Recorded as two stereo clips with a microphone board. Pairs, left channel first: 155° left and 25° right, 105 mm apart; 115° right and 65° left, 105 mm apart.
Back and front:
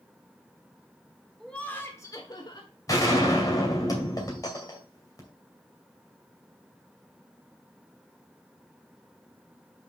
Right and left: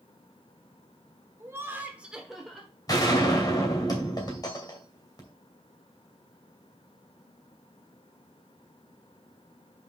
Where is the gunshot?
155° right, 2.5 m.